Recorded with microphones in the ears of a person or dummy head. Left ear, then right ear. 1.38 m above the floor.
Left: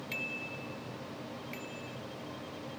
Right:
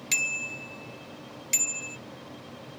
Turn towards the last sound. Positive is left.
turn(degrees=-85)